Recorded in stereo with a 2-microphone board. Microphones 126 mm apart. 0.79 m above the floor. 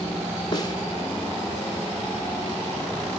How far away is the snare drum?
About 1.2 m.